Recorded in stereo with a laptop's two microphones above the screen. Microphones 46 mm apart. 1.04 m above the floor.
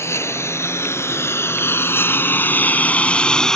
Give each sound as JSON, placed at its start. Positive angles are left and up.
{"t": 0.0, "sound": "a lawn mower", "side_deg": 80}